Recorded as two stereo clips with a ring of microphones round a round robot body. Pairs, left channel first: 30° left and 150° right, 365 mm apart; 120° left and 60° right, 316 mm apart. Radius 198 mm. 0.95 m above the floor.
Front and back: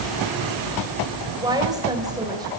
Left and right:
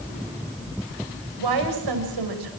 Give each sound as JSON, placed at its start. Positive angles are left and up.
{"t": 1.4, "sound": "a woman speaking", "azimuth_deg": -70, "distance_m": 6.0}